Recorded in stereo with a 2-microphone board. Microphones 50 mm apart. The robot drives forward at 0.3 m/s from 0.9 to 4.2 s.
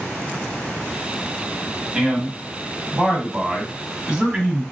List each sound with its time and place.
1.9 s a man speaking: 20° right (ahead or behind), 1.0 m; by 4.6 s 15° right (ahead or behind), 1.1 m